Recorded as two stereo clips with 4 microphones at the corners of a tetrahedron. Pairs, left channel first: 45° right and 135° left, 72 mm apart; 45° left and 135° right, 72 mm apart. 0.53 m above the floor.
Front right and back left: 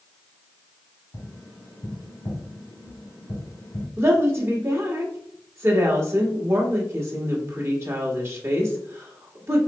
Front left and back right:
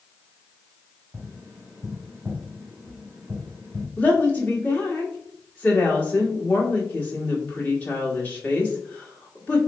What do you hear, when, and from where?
1.1 s tapping: 70° right, 1.8 m
4.0 s a woman speaking: 100° left, 1.4 m